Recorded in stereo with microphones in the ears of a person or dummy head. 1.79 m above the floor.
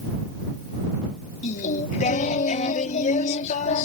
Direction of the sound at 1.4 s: 35° left (ahead or behind).